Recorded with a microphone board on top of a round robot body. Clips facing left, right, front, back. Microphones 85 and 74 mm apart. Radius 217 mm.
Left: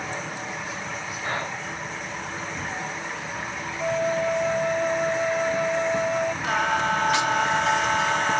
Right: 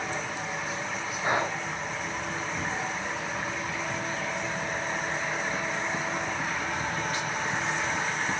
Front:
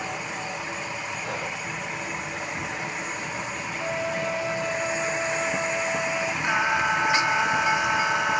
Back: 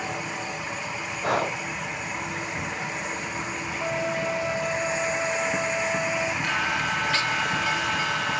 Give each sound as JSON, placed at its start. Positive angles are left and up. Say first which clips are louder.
{"t": 1.2, "sound": "breathing", "louder": "right 3 dB, back 11 dB", "azimuth_deg": -165}
{"t": 3.8, "sound": "a flute", "louder": "left 8 dB, back 1 dB", "azimuth_deg": 90}
{"t": 6.4, "sound": "singing", "louder": "left 8 dB, front 3 dB", "azimuth_deg": 75}